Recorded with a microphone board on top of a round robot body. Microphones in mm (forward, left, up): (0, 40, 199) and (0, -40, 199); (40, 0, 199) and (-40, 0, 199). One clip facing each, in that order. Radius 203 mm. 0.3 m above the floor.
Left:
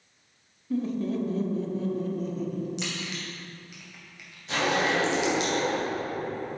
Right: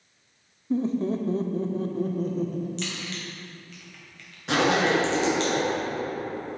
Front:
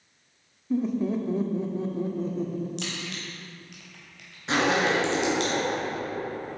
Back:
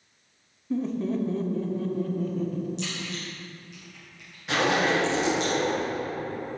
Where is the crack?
15° left, 3 m.